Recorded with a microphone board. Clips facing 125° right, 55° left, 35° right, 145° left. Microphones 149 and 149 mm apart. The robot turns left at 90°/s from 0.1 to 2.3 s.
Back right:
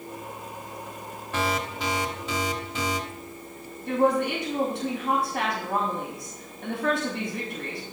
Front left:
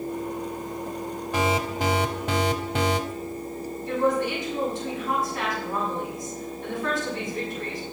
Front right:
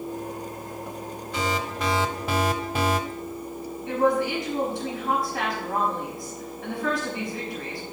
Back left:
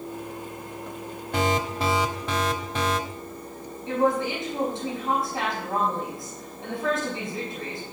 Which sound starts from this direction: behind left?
An alarm, at 1.3 s.